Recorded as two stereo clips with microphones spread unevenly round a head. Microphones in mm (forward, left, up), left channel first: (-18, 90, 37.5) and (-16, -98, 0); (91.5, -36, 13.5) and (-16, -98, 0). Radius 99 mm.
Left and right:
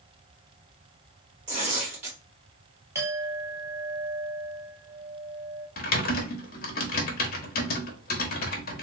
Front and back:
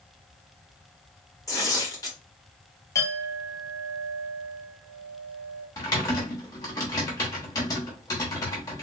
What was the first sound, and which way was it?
Tearing paper, 30° right.